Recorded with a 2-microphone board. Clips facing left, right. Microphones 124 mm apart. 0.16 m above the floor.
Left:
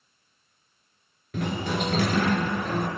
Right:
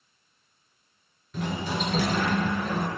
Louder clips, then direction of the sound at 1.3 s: Left 2 dB; 65° left (ahead or behind).